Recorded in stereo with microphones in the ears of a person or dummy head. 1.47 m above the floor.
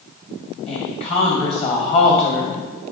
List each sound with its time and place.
0.7 s a woman speaking: 40° left (ahead or behind), 1.8 m